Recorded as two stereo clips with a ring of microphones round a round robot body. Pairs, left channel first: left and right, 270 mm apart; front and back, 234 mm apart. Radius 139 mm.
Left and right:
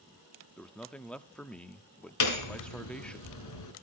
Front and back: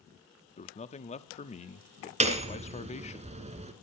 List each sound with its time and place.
0.6 s a man speaking: 10° left, 0.7 m
2.2 s hammering: 115° left, 2 m